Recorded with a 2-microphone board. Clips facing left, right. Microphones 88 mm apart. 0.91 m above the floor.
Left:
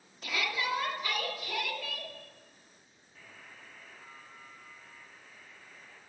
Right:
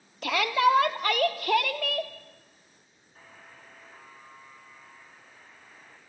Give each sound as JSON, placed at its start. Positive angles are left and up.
{"t": 0.2, "sound": "a shout", "side_deg": -70, "distance_m": 1.5}
{"t": 3.1, "sound": "a buzzer", "side_deg": -40, "distance_m": 6.0}